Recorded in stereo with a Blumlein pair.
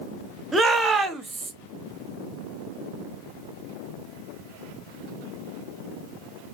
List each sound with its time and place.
0.5 s a shout: 10° right, 1.2 m